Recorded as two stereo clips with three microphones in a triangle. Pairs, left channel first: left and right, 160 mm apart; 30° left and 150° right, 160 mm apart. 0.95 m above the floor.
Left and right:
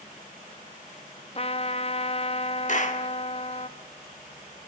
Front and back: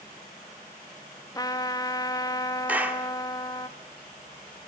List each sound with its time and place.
1.4 s a trumpet: 80° left, 0.6 m
2.7 s a clap: 130° left, 1.4 m